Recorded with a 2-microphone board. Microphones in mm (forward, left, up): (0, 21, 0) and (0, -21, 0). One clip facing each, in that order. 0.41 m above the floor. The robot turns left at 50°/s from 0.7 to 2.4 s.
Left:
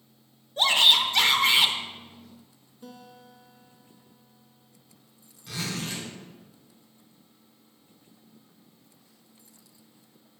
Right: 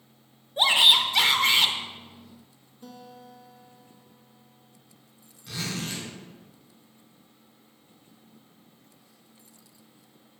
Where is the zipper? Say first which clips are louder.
Even; centre (ahead or behind), 2.5 m.